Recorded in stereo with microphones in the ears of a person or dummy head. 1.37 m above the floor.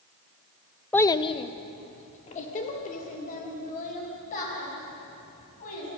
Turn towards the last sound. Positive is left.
turn(degrees=45)  # may be behind; listen again after turning